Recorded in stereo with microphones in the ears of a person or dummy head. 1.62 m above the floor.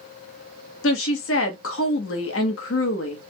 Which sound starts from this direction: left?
A woman speaking, at 0.8 s.